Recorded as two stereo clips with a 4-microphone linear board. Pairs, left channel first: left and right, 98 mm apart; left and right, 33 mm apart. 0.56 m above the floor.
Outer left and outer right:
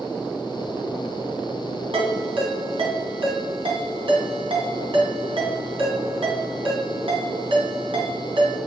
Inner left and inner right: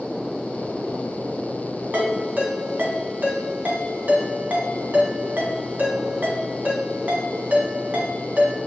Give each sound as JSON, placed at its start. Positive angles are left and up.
{"t": 1.9, "sound": "a ringtone", "side_deg": -70, "distance_m": 1.9}